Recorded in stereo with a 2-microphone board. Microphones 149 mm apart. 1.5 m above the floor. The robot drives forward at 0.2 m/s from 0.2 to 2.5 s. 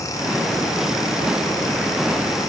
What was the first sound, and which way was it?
Only background noise.